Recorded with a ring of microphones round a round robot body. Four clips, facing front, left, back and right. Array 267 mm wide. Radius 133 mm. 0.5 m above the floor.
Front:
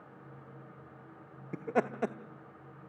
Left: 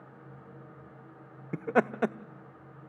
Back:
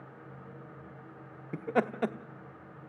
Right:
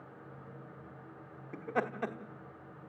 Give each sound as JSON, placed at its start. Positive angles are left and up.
{"t": 1.5, "sound": "laughter", "azimuth_deg": 100, "distance_m": 0.8}